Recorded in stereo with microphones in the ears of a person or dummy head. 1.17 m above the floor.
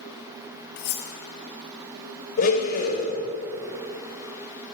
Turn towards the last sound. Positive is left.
turn(degrees=50)  # may be behind; listen again after turning